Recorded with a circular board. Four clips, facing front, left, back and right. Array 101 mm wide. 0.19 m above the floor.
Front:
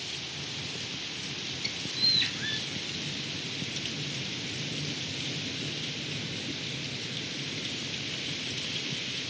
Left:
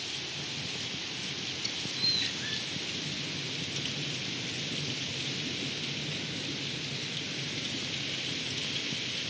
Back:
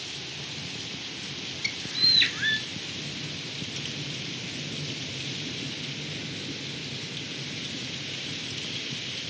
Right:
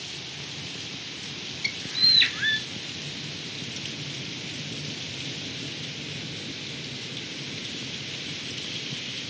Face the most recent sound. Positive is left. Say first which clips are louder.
# right 3 dB, back 4 dB
turn(degrees=-125)